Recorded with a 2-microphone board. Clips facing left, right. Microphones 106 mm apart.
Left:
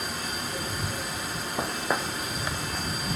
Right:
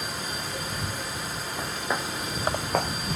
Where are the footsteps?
30° left (ahead or behind); by 2.9 s 70° right (ahead or behind).